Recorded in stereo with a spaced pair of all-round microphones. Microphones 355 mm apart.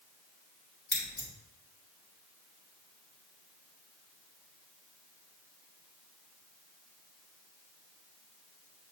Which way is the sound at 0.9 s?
30° left (ahead or behind).